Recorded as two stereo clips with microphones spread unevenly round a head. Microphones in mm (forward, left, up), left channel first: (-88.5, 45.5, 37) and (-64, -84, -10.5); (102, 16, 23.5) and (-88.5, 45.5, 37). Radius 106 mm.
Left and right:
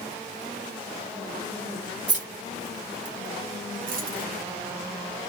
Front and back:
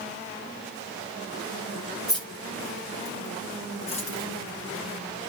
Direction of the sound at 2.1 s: 95° right.